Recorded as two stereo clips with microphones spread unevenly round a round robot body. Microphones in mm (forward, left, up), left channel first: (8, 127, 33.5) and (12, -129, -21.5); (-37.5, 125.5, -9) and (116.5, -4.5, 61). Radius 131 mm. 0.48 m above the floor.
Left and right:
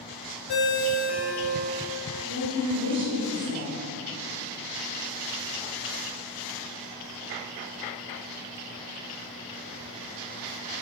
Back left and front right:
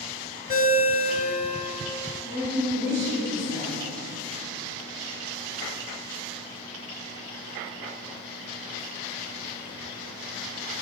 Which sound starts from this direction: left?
A ringtone, at 0.5 s.